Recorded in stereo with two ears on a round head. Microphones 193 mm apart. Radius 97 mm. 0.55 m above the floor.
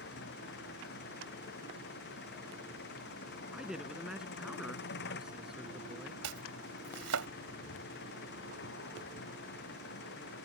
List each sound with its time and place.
0.0 s an engine running: 45° left (ahead or behind)
3.5 s a man speaking: 5° right (ahead or behind)
6.2 s chopping: 70° right (ahead or behind)